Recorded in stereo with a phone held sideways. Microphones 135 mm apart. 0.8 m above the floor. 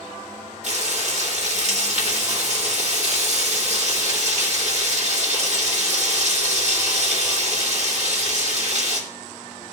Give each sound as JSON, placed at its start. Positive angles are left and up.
{"t": 0.6, "sound": "frying", "side_deg": -55, "distance_m": 2.5}